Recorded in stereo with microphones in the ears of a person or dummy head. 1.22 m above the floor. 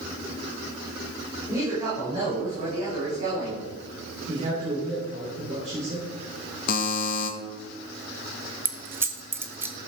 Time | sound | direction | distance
1.5 | a woman speaking | 20° right (ahead or behind) | 5.5 m
4.3 | a man speaking | 35° right (ahead or behind) | 4 m
6.7 | a buzzer | 55° left (ahead or behind) | 1.7 m
8.7 | keys jangling | 10° right (ahead or behind) | 0.6 m